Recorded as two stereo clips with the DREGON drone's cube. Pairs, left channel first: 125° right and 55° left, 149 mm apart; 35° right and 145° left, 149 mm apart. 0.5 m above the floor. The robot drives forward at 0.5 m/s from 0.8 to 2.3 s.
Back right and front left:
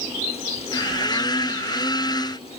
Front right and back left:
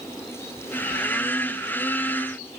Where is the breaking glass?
No breaking glass in this recording.